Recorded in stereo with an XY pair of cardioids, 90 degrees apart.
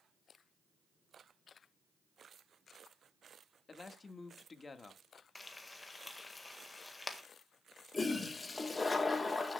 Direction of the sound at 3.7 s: 35° left.